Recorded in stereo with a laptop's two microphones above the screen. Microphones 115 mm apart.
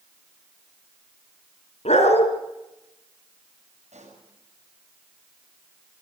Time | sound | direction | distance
1.9 | a dog barking | 65° left (ahead or behind) | 2.5 m
3.9 | a pop | 85° right | 6.5 m